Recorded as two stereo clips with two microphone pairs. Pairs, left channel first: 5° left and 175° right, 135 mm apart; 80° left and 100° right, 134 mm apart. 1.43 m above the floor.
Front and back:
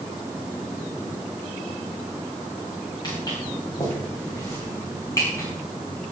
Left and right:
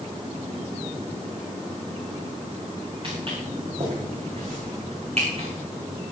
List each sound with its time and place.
3.0 s footsteps: 55° right, 7 m; by 5.5 s 65° right, 7 m